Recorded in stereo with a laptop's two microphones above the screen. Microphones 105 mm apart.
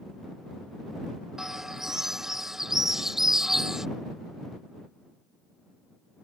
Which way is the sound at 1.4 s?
5° right (ahead or behind).